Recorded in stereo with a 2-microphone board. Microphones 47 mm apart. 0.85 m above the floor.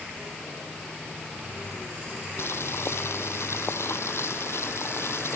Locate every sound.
2.4 s boiling: 65° left (ahead or behind)